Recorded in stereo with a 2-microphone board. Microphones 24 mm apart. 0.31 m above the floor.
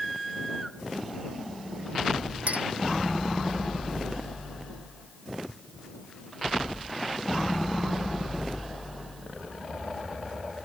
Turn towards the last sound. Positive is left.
turn(degrees=-65)  # may be behind; listen again after turning